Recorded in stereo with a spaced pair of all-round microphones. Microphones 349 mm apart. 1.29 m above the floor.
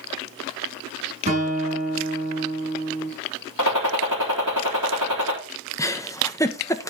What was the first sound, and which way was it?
A guitar, 20° right (ahead or behind).